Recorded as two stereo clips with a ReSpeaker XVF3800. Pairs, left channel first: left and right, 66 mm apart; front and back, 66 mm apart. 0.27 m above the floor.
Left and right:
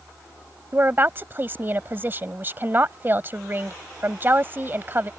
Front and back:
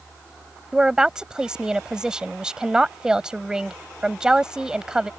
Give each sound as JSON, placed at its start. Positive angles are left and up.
{"t": 0.7, "sound": "a woman speaking", "azimuth_deg": -110}